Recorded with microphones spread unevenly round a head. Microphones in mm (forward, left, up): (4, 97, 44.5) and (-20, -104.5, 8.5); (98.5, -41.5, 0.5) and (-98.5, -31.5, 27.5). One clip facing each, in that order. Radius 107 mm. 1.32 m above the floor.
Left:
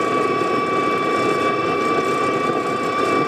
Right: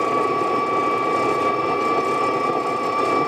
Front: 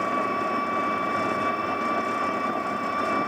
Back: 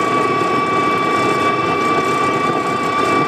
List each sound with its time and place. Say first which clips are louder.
0.0 s an engine running: left 2 dB, back 11 dB; 155° left